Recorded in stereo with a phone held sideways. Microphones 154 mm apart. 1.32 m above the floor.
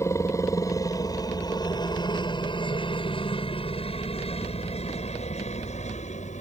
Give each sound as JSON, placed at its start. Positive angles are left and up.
{"t": 0.0, "sound": "a helicopter", "side_deg": 20}